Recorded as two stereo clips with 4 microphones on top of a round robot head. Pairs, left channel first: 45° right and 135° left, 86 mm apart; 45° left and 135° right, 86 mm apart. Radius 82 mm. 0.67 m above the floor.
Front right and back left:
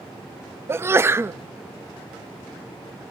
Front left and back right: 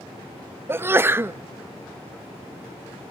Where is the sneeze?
175° left, 0.6 m.